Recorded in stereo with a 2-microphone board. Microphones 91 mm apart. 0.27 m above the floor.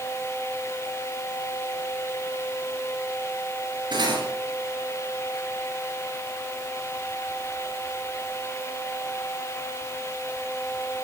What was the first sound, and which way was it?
Cutlery clinking, 50° right (ahead or behind).